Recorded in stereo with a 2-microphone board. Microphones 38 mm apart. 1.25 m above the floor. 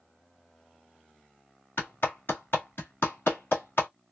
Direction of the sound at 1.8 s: 70° left (ahead or behind).